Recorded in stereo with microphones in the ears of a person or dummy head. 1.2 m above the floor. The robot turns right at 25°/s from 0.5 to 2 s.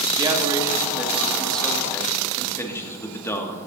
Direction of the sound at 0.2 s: 25° right.